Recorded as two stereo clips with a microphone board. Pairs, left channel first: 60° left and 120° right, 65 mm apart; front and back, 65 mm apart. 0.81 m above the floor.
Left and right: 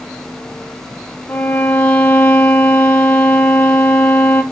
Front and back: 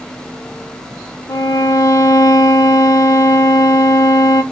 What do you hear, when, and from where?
1.3 s a violin: straight ahead, 0.6 m